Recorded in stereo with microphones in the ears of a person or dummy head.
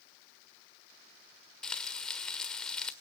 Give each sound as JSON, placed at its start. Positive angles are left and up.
{"t": 1.6, "sound": "frying", "side_deg": 5, "distance_m": 1.5}